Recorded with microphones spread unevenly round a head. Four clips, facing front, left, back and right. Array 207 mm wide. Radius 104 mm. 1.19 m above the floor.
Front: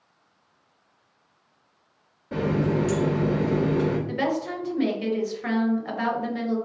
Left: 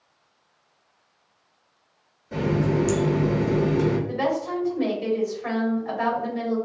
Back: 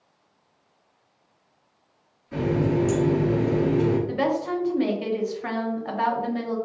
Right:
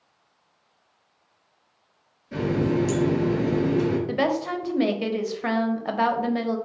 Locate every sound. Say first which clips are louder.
2.3 s a running tap: even, back 1 dB; 10° left, 1.3 m
4.1 s a woman speaking: right 1 dB, back 2 dB; 80° right, 1.0 m